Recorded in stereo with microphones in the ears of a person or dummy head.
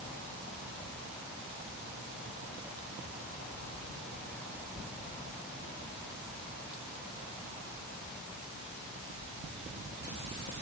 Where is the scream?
No scream in this recording.